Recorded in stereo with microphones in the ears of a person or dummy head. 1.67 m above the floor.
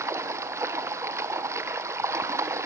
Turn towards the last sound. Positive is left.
turn(degrees=-15)  # may be behind; listen again after turning